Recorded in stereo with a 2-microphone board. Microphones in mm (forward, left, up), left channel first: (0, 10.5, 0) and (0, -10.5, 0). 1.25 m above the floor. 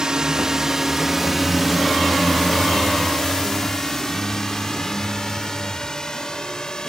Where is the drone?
35° right (ahead or behind); by 6.9 s 30° left (ahead or behind).